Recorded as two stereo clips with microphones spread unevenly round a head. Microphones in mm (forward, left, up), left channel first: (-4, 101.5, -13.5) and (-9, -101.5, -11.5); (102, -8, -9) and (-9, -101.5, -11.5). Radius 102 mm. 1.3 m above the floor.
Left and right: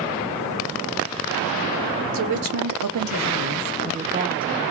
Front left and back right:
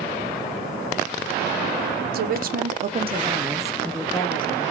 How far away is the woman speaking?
About 0.9 m.